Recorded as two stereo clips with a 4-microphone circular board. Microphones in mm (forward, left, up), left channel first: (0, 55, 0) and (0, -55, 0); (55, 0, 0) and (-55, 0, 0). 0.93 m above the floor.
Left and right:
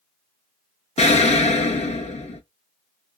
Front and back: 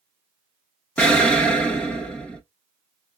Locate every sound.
1.0 s an explosion: 80° left, 0.9 m